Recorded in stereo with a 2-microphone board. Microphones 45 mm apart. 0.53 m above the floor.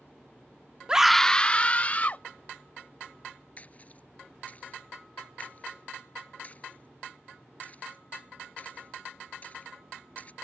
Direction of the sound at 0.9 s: 20° right (ahead or behind).